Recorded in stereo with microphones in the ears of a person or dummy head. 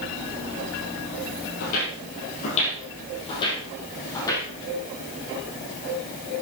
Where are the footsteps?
40° left (ahead or behind), 2 m; by 4.5 s 15° left (ahead or behind), 2.5 m.